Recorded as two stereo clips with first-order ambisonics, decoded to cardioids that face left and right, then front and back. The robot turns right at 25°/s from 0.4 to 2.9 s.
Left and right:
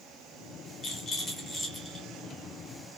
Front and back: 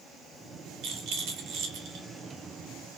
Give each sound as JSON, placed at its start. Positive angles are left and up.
{"t": 0.8, "sound": "a rattle", "azimuth_deg": 150, "distance_m": 1.2}